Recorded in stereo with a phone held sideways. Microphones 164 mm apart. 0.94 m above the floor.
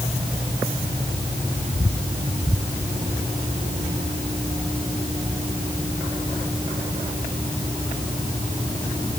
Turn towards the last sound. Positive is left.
No sound to turn to.